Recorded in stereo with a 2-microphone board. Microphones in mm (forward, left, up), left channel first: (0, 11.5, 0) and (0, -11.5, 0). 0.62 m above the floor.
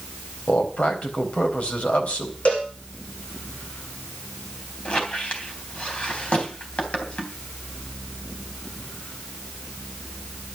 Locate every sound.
0.5 s a man speaking: 70° left (ahead or behind), 3.5 m
2.5 s a cowbell: 65° left (ahead or behind), 8.5 m
4.8 s a squeak: 55° left (ahead or behind), 3 m